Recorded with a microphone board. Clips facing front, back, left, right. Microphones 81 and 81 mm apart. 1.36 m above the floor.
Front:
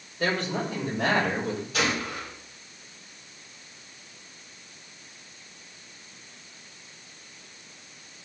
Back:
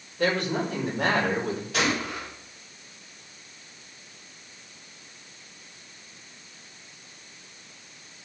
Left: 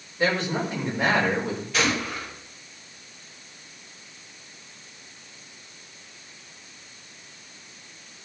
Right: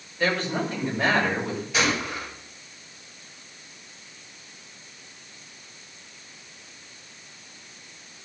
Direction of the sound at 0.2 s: 165° left.